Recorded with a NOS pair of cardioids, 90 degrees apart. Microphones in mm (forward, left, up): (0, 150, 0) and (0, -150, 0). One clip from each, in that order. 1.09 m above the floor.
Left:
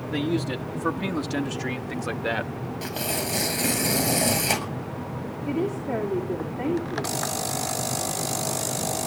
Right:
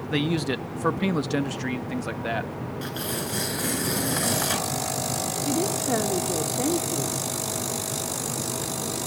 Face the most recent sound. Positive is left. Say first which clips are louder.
# right 1 dB
turn(degrees=-30)